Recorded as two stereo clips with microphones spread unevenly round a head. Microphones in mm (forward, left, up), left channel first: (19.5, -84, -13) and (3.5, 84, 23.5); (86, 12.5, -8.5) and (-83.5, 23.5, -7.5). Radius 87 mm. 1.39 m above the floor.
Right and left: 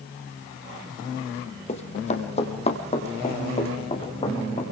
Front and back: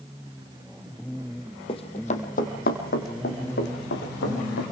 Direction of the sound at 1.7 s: 40° right.